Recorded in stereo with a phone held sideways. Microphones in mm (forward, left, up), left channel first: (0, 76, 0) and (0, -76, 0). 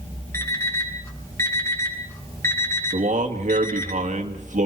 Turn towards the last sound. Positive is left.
turn(degrees=-60)  # may be behind; listen again after turning